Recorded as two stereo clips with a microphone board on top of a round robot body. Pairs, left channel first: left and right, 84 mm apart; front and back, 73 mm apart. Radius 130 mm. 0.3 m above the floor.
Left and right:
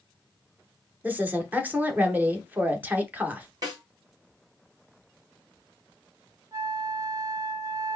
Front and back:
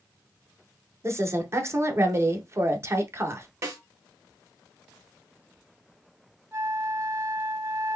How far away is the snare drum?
About 2 m.